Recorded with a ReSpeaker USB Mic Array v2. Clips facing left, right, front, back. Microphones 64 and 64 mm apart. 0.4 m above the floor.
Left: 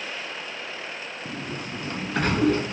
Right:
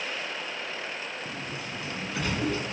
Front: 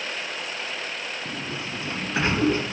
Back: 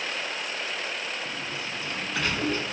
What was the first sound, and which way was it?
A sliding door, 60° left.